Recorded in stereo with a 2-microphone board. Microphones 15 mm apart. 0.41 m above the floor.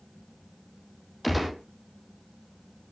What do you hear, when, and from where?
1.2 s a gunshot: centre (ahead or behind), 3.5 m